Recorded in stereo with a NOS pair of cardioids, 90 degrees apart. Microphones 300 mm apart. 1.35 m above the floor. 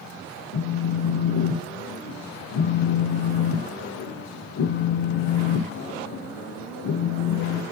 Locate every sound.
0.5 s a phone buzzing: 55° left, 1.9 m